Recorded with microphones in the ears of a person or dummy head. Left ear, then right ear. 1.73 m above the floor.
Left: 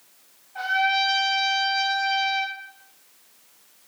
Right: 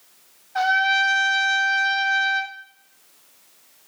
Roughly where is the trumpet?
Right.